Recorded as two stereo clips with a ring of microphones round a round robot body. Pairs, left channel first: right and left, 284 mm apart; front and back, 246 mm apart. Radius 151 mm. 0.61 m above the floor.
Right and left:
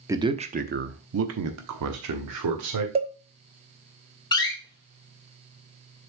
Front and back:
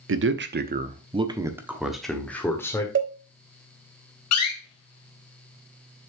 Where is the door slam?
15° right, 1.7 m.